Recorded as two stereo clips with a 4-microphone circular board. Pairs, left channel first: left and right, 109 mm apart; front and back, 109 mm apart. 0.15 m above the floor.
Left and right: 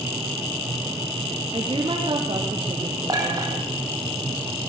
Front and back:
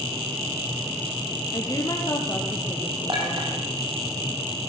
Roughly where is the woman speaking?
Ahead right.